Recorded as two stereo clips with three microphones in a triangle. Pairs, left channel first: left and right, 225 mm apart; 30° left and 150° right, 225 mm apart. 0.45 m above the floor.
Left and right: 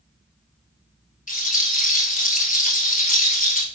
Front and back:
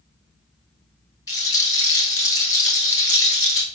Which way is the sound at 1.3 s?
40° left.